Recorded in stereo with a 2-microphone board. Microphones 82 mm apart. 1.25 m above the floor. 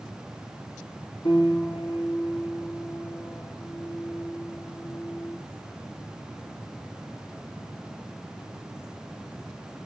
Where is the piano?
65° left (ahead or behind), 2 m.